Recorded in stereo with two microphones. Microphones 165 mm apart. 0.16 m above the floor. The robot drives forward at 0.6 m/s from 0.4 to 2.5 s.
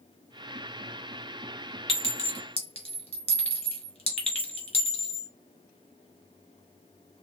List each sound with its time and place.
1.9 s a clink: 35° left (ahead or behind), 2 m; by 5.3 s 40° left (ahead or behind), 1.9 m